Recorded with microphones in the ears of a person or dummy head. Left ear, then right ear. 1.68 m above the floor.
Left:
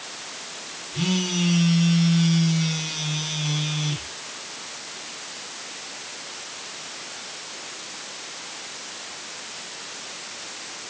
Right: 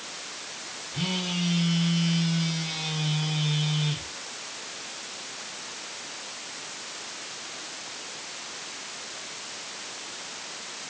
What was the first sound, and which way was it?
A phone buzzing, centre (ahead or behind).